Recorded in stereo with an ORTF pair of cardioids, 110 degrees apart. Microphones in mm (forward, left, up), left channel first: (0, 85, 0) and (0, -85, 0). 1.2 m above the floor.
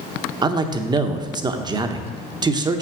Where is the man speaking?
25° right, 1.0 m.